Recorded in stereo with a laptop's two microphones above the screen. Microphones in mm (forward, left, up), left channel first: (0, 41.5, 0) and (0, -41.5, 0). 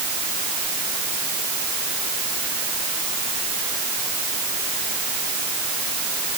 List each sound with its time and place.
Only background noise.